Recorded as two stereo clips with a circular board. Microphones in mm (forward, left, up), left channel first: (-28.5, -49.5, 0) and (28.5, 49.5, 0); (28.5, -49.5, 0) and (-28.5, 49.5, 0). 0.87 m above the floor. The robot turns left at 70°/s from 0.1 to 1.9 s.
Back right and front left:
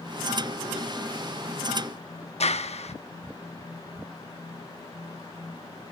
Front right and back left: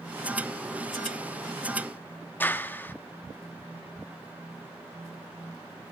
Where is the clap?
135° right, 1.3 m.